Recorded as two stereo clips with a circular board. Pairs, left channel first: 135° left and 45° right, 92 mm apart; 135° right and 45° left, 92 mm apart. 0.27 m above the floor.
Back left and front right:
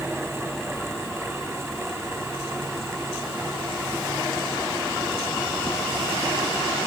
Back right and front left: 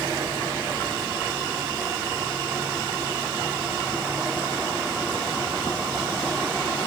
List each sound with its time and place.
Only background noise.